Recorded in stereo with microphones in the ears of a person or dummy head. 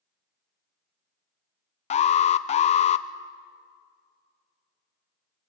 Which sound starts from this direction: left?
An alarm, at 1.9 s.